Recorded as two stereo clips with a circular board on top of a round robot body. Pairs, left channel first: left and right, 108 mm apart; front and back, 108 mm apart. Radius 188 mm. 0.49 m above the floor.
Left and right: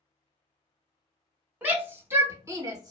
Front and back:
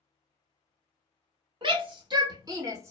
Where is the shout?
160° right, 1.8 m; by 2.9 s 125° right, 1.6 m.